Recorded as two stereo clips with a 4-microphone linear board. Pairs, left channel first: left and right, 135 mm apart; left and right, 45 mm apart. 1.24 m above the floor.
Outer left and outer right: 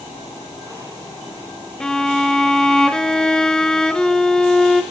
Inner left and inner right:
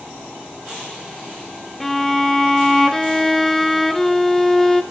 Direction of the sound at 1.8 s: 5° left (ahead or behind).